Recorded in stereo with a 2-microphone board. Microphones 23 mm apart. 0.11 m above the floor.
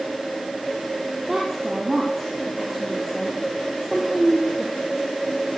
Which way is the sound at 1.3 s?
10° right (ahead or behind).